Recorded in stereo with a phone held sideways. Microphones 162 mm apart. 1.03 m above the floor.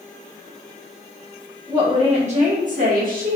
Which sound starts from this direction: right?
A woman speaking, at 1.7 s.